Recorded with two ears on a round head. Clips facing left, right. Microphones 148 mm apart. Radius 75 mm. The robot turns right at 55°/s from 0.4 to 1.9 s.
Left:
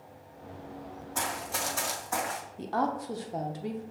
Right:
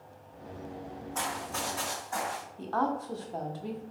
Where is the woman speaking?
15° left (ahead or behind), 0.6 m.